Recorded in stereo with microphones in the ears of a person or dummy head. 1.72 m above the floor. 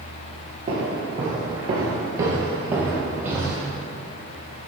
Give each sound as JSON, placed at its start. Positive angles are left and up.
{"t": 0.7, "sound": "footsteps", "side_deg": -25, "distance_m": 2.0}